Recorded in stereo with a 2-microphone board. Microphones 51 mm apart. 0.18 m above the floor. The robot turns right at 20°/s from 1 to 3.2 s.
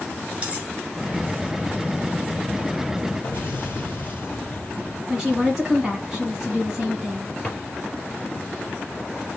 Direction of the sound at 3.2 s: 40° left (ahead or behind).